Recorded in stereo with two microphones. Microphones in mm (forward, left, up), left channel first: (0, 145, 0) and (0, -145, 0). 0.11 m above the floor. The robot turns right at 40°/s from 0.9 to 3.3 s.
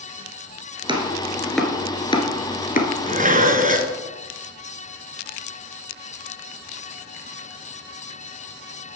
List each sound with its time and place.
0.9 s chopping: 15° right (ahead or behind), 1.3 m; by 2.9 s 35° left (ahead or behind), 1.3 m
3.0 s dishes clattering: 25° right (ahead or behind), 1.0 m; by 4.0 s 30° right (ahead or behind), 1.0 m